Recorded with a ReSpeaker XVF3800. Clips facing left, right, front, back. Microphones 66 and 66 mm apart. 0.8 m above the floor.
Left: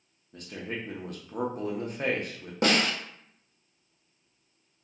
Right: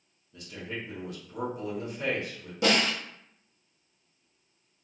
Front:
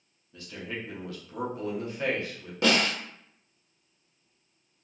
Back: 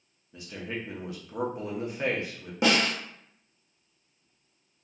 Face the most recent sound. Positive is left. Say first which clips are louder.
# even, even
turn(degrees=115)